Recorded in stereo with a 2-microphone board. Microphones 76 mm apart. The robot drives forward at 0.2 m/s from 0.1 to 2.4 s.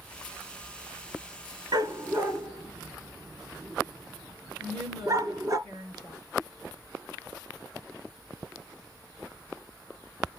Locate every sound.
1.7 s a dog barking: 55° right (ahead or behind), 0.8 m; by 5.6 s 50° right (ahead or behind), 0.9 m
4.6 s a woman speaking: 70° right (ahead or behind), 3 m